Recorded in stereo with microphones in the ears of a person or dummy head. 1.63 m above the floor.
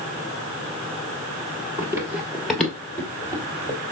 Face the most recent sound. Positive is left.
turn(degrees=25)  # may be behind; listen again after turning